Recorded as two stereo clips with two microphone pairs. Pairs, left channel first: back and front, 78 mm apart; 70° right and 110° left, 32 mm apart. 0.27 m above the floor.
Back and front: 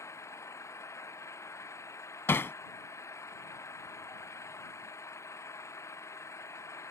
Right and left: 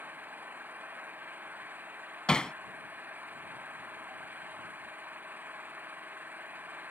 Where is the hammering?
125° right.